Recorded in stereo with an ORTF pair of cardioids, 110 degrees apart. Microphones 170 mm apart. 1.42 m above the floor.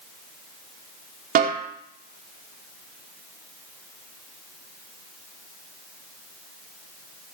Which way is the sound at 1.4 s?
60° right.